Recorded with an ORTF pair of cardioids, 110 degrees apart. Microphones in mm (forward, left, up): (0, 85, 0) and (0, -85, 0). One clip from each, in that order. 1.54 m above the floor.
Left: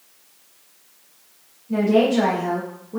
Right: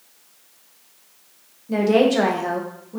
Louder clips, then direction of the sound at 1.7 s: Right 1 dB; 65° right.